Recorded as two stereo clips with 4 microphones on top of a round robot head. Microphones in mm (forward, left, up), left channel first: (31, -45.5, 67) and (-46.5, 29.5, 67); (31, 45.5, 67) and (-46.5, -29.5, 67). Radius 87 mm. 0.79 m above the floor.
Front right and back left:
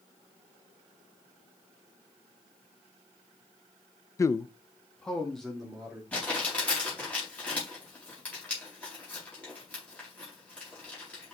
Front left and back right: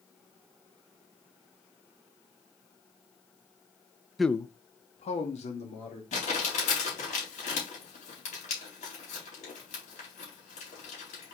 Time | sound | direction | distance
4.2 | a man speaking | 50° right | 0.5 m
6.1 | crumpling | 35° left | 4.5 m